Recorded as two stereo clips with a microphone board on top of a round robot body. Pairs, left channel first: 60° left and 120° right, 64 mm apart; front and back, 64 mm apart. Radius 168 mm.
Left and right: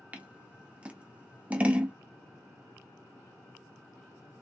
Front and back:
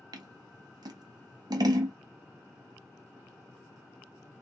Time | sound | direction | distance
0.1 | scissors | 170° left | 0.6 m